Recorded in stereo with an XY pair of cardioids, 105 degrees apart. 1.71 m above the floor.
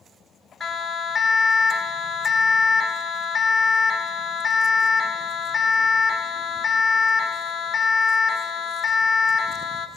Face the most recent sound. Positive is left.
turn(degrees=20)